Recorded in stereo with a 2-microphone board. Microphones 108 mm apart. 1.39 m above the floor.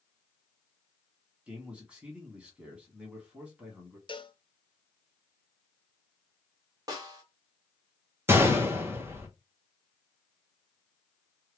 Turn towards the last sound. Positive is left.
turn(degrees=-20)  # may be behind; listen again after turning